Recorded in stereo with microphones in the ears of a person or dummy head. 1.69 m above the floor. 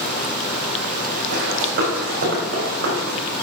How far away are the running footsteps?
About 3 m.